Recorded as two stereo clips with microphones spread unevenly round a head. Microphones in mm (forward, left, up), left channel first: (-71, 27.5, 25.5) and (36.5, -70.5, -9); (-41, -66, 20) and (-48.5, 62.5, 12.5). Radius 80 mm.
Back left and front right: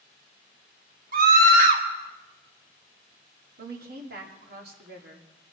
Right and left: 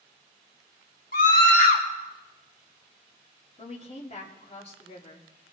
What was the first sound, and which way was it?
A scream, 50° right.